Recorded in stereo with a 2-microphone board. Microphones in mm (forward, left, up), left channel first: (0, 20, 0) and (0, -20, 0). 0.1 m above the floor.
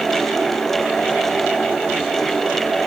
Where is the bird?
No bird in this recording.